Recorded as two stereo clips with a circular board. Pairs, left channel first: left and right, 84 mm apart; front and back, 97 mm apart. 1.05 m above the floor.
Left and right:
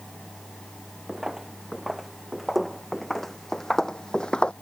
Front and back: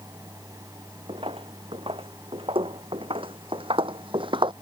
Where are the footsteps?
175° right; by 4.5 s 165° left.